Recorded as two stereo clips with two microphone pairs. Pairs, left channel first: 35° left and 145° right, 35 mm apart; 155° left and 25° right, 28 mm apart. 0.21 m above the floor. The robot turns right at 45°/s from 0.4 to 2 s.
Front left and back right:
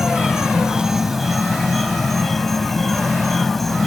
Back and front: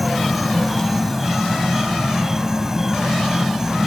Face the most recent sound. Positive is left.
turn(degrees=-30)